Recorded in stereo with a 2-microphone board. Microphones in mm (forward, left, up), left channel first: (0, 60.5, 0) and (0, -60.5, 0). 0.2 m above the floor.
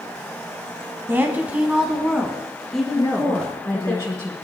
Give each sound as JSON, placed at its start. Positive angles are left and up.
{"t": 1.1, "sound": "a woman speaking", "side_deg": -20, "distance_m": 1.5}
{"t": 3.0, "sound": "a woman speaking", "side_deg": 25, "distance_m": 2.0}